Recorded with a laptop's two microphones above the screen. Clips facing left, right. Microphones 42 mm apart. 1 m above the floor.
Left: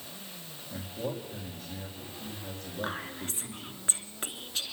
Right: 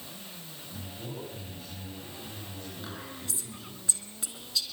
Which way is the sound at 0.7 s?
60° left (ahead or behind).